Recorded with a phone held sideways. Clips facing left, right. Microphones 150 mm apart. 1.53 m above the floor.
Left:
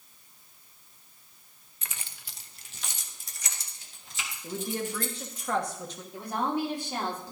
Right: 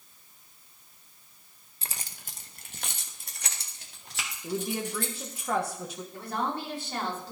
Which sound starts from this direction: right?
Keys jangling, at 1.8 s.